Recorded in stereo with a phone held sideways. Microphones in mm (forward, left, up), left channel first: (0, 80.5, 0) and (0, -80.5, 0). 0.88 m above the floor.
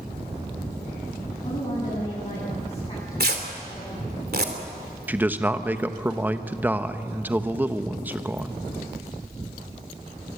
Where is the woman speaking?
35° left (ahead or behind), 9 m.